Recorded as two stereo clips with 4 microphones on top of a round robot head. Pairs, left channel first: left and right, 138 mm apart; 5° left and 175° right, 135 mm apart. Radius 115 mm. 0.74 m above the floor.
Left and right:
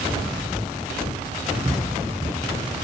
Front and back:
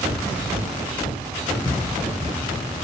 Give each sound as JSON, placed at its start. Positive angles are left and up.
{"t": 1.6, "sound": "footsteps", "azimuth_deg": -35, "distance_m": 0.9}